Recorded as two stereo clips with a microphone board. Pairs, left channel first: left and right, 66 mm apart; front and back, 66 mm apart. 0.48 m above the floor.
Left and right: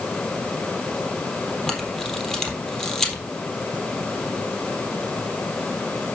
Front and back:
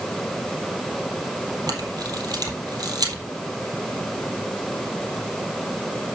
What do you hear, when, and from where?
1.7 s a camera shutter: 170° left, 3.5 m